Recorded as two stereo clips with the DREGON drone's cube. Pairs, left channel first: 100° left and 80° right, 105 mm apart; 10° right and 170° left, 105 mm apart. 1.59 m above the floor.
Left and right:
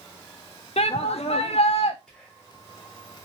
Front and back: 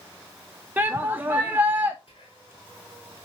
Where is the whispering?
20° left, 1.6 m.